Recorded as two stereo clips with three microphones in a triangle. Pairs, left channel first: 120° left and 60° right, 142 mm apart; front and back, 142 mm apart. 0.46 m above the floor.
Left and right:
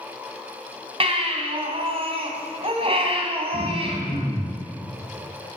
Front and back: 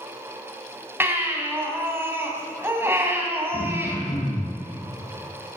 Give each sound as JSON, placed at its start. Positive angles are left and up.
{"t": 1.0, "sound": "a baby crying", "azimuth_deg": -105, "distance_m": 2.5}
{"t": 3.5, "sound": "throat clearing", "azimuth_deg": -40, "distance_m": 7.0}